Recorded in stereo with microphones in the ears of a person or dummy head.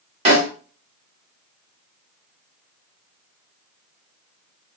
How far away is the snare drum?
About 1.0 m.